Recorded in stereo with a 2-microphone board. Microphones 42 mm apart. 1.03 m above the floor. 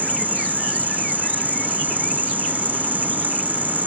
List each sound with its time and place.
0.0 s an insect: 50° right (ahead or behind)